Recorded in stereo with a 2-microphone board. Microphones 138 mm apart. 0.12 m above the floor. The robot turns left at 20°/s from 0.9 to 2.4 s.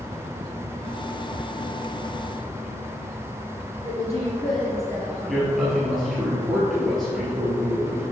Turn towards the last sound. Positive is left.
turn(degrees=0)  # may be behind; listen again after turning